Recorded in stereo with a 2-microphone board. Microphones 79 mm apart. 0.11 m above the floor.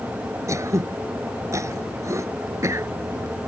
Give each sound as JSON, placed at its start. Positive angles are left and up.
{"t": 0.5, "sound": "throat clearing", "side_deg": -40}